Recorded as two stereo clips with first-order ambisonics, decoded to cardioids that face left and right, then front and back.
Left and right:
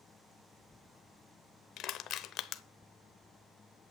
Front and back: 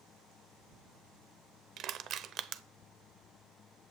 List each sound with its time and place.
1.8 s crushing: 130° left, 0.7 m